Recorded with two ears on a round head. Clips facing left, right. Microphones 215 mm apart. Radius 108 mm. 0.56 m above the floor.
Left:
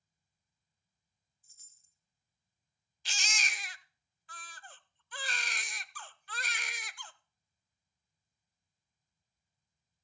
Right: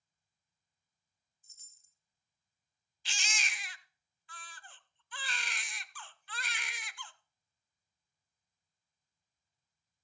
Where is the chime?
20° right (ahead or behind), 1.7 m.